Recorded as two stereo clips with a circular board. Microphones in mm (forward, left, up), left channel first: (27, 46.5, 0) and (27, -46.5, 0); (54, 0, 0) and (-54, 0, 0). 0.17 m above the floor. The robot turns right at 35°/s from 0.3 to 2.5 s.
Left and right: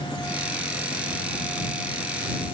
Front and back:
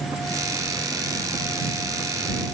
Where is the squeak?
No squeak in this recording.